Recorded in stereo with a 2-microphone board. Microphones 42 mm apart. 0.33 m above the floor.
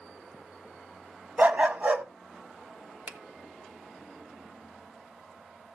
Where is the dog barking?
35° right (ahead or behind), 0.9 m.